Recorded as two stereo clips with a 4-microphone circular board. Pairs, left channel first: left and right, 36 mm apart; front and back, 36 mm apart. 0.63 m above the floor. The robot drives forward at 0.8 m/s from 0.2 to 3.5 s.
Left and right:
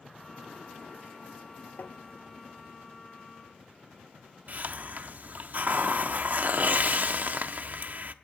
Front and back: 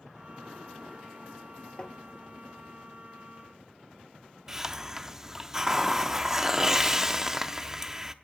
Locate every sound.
1.8 s tapping: 60° left, 1.0 m; by 2.0 s 70° left, 1.0 m
4.5 s a hiss: 110° right, 0.6 m